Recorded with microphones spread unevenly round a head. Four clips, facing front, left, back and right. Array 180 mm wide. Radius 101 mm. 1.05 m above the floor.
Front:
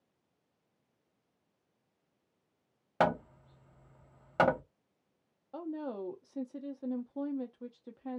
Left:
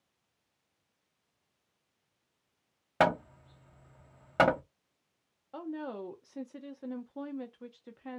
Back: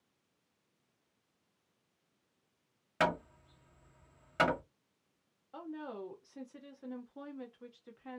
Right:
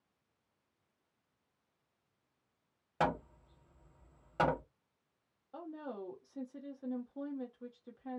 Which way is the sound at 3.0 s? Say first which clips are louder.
Left 7 dB, front 3 dB; 85° left.